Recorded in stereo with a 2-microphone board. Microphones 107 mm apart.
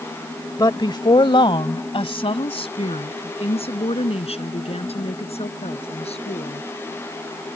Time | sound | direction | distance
0.6 | a woman speaking | 35° left (ahead or behind) | ?